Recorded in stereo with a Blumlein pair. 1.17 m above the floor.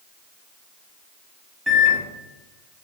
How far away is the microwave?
About 0.7 m.